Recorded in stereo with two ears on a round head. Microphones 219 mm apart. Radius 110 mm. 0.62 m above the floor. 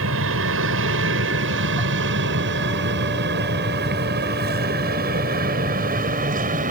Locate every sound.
0.0 s an aircraft: 60° right (ahead or behind); by 6.7 s 35° right (ahead or behind)